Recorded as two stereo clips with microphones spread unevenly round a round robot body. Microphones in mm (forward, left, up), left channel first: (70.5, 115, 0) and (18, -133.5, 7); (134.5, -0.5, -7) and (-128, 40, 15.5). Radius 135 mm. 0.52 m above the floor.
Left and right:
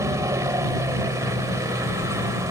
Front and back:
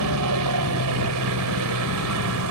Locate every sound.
0.0 s a helicopter: straight behind